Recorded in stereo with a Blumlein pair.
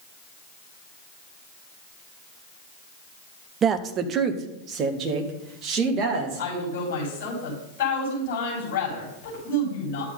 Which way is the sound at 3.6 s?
25° right.